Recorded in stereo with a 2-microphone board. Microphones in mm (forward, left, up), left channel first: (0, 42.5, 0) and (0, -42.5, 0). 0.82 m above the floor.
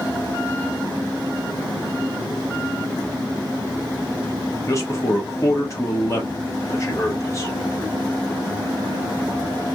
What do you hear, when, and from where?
4.7 s a man speaking: 35° left (ahead or behind), 1.1 m